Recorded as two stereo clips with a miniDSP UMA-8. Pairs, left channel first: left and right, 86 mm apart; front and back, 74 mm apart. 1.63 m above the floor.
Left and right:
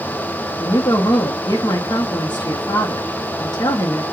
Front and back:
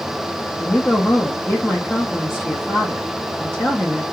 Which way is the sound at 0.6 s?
55° left.